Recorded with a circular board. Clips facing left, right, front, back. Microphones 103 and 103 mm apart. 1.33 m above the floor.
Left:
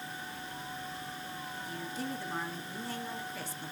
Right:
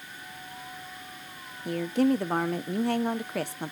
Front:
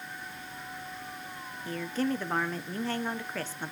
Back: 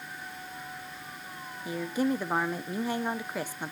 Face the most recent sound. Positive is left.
turn(degrees=-105)